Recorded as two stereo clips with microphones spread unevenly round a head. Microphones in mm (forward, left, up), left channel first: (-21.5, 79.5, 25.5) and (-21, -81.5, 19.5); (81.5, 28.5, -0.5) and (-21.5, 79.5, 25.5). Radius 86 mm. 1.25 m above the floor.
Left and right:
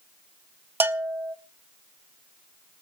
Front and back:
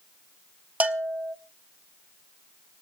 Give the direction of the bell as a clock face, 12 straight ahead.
5 o'clock.